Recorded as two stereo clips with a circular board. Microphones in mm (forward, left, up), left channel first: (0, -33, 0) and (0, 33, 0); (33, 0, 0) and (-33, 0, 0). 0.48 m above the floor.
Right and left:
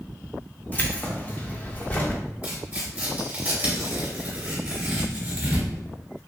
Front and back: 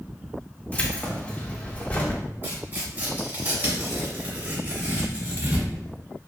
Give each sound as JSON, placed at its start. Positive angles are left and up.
{"t": 0.7, "sound": "keys jangling", "azimuth_deg": -50, "distance_m": 0.5}
{"t": 2.4, "sound": "tearing paper", "azimuth_deg": 145, "distance_m": 1.3}